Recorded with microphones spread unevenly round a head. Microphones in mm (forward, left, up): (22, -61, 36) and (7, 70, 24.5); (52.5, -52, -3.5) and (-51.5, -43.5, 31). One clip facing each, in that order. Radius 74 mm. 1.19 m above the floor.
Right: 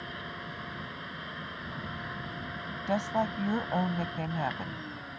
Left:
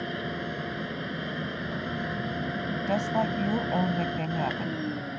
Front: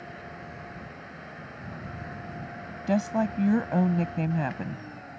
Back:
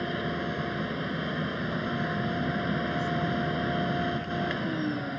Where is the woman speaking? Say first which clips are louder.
Left 2 dB, front 3 dB; 20° left.